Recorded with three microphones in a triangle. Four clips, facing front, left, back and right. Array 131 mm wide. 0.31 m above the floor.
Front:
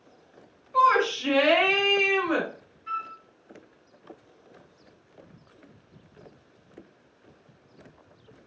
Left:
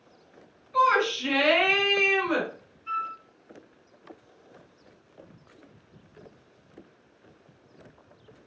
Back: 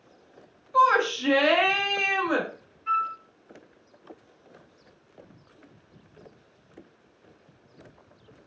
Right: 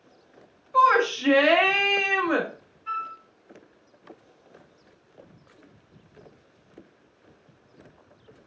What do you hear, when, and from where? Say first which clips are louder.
0.7 s a shout: right 3 dB, even; 100° right, 1.0 m
2.9 s a flute: even, back 7 dB; 135° right, 1.3 m